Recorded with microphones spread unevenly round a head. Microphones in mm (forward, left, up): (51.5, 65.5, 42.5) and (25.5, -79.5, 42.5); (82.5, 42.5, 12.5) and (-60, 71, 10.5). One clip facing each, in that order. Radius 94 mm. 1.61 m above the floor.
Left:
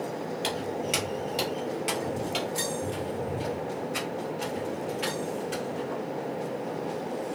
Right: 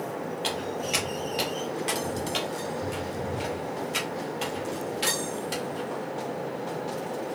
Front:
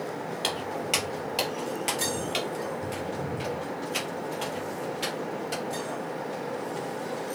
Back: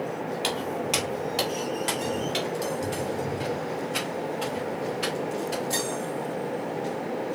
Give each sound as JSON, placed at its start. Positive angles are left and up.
{"t": 0.4, "sound": "footsteps", "azimuth_deg": 70, "distance_m": 2.0}